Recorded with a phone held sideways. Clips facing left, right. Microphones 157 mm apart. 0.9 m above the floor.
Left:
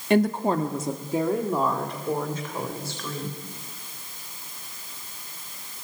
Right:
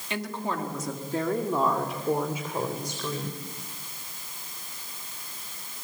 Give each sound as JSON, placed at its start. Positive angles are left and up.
{"t": 0.1, "sound": "a woman speaking", "side_deg": 55, "distance_m": 1.7}